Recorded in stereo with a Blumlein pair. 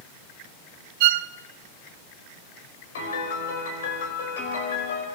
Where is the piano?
60° left, 5.5 m.